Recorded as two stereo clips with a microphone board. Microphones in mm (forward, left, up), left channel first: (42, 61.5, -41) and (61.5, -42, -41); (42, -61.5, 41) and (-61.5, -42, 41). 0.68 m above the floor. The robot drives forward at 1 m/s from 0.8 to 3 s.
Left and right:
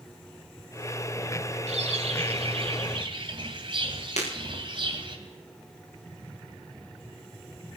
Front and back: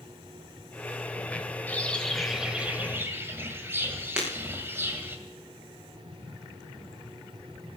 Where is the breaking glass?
85° left, 7 m.